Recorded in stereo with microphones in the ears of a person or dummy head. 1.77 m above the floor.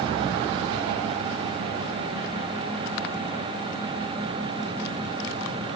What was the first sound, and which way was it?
Only background noise.